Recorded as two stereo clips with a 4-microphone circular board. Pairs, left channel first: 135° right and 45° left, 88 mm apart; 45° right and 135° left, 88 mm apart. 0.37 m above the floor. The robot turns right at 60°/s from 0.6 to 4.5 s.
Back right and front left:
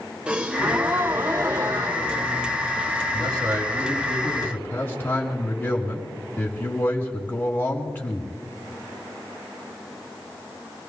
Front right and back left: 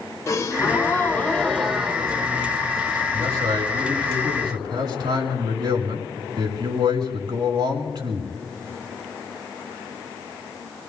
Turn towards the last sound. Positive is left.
turn(degrees=160)